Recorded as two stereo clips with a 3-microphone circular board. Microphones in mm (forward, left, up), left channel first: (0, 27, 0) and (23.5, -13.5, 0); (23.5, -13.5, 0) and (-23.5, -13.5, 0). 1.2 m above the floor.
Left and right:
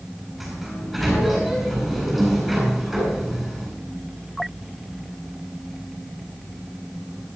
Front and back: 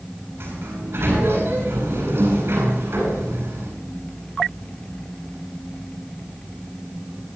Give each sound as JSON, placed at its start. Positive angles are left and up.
{"t": 0.4, "sound": "a sliding door", "azimuth_deg": -145, "distance_m": 8.5}